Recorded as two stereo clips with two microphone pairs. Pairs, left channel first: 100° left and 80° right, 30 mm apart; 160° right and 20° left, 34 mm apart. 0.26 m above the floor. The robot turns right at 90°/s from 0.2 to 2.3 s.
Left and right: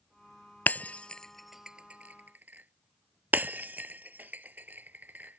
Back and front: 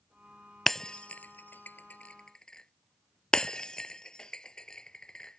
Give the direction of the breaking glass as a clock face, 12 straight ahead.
8 o'clock.